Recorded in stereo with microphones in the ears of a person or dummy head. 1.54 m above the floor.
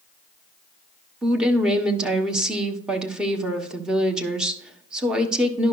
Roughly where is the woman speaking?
Centre.